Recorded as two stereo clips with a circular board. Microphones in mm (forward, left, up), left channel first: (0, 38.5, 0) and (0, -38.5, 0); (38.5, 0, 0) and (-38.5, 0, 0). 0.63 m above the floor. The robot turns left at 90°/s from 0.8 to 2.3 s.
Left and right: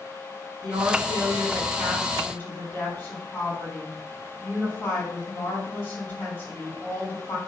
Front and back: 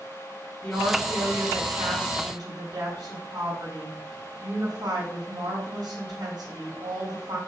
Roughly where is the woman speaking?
Right.